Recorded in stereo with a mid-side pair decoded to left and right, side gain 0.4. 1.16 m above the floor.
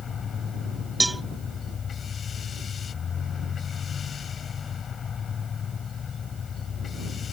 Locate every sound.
0.0 s a machine running: 55° left
1.0 s a cowbell: 15° right